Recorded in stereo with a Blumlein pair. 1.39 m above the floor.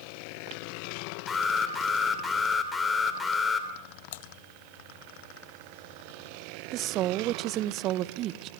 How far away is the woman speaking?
About 0.8 m.